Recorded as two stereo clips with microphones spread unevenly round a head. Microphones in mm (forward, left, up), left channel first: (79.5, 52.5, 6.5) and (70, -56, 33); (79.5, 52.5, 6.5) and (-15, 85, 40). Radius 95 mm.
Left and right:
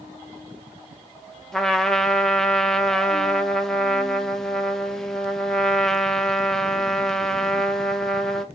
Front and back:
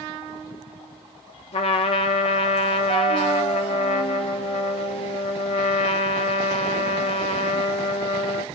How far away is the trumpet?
About 0.7 m.